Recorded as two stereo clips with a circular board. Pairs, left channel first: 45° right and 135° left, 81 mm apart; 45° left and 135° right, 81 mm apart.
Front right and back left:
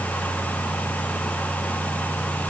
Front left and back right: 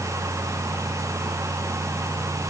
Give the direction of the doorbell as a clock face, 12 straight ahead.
I don't hear a doorbell.